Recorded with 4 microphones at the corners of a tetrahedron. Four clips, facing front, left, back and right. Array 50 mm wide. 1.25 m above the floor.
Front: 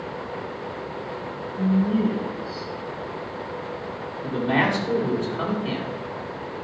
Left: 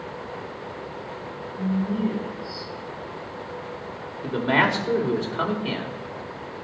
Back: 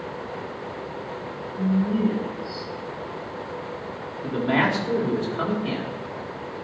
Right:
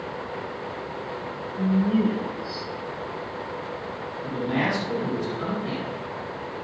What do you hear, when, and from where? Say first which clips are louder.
1.6 s a woman speaking: right 3 dB, front 1 dB; 80° right, 3.5 m
4.2 s a man speaking: left 5 dB, even; 105° left, 3.5 m